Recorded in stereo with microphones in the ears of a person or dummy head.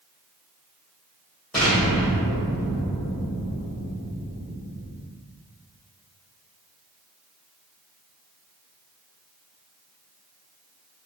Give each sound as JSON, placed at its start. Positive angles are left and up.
{"t": 1.5, "sound": "an explosion", "side_deg": 5, "distance_m": 1.0}